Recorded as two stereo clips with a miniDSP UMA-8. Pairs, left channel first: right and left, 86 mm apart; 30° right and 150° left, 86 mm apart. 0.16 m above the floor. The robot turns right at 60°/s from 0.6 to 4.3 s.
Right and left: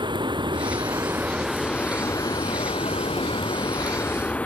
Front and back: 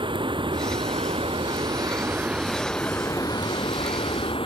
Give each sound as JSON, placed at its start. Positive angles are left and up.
{"t": 0.0, "sound": "running water", "azimuth_deg": 125}